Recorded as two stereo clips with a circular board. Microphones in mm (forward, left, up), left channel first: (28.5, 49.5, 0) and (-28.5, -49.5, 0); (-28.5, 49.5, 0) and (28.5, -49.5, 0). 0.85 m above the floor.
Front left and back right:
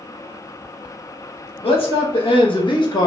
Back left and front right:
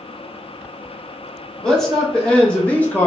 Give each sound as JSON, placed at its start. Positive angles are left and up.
{"t": 1.6, "sound": "a man speaking", "azimuth_deg": 35, "distance_m": 1.6}